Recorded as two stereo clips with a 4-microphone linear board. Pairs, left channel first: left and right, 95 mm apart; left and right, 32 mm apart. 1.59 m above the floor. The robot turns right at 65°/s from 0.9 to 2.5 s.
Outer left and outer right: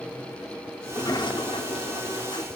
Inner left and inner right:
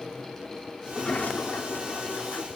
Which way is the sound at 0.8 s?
30° left.